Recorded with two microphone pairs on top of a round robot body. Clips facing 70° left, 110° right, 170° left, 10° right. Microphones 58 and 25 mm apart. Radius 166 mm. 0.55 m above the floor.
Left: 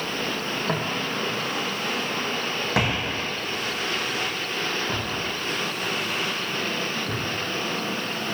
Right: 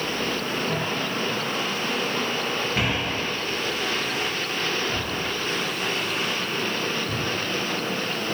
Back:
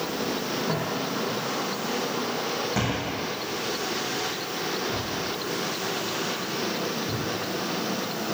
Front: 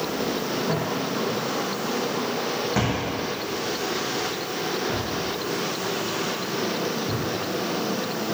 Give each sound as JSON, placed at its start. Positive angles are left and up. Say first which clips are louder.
{"t": 0.7, "sound": "footsteps", "louder": "even, front 2 dB", "azimuth_deg": 85, "distance_m": 2.5}